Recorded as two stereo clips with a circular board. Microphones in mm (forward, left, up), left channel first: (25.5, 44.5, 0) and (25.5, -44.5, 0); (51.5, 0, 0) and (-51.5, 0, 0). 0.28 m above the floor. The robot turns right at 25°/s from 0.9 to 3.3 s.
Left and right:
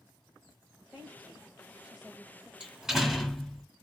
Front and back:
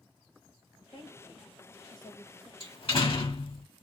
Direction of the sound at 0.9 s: 30° right.